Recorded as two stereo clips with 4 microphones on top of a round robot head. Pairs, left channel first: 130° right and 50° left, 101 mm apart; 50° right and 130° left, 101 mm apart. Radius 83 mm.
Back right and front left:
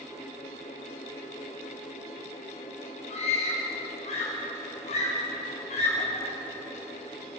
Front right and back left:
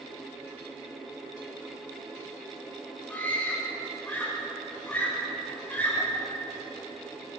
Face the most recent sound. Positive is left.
turn(degrees=-125)